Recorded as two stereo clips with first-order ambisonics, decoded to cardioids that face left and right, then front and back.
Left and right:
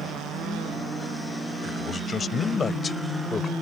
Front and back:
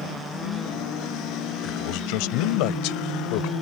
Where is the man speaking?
15° left.